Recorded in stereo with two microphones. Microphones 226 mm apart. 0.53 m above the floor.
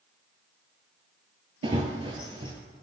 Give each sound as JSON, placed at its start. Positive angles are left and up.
{"t": 1.6, "sound": "running footsteps", "side_deg": -25, "distance_m": 0.5}